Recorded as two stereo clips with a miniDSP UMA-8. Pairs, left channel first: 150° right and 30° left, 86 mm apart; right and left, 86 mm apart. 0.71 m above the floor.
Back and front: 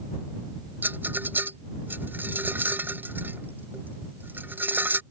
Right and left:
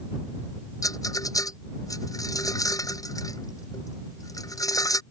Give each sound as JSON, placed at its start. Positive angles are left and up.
{"t": 0.8, "sound": "a rattle", "azimuth_deg": -40}